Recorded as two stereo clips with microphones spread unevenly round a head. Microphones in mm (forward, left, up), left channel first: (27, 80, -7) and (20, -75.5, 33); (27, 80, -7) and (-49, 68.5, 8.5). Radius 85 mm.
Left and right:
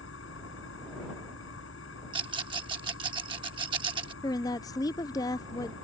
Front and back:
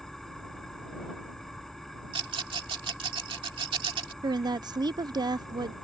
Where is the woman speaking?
155° left.